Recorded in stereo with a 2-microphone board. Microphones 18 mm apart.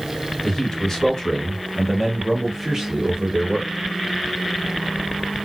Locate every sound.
0.4 s a man speaking: 35° left (ahead or behind), 1.4 m; by 3.7 s 25° right (ahead or behind), 1.3 m